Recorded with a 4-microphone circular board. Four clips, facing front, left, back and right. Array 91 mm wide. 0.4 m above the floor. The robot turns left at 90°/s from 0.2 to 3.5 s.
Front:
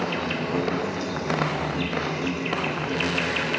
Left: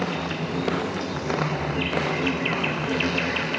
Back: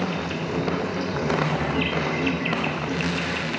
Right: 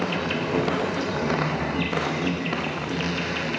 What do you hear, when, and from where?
0.0 s an insect: 45° right, 0.8 m; by 3.6 s 20° left, 0.8 m